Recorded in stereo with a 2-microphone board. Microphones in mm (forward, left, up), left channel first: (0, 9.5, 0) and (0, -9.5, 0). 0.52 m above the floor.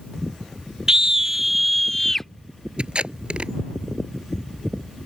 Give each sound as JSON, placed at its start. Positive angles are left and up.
{"t": 0.9, "sound": "a scream", "side_deg": -30}
{"t": 2.8, "sound": "tape being pulled", "side_deg": -70}